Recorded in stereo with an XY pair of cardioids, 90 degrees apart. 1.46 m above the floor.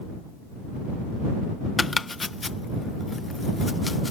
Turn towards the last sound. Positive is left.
turn(degrees=25)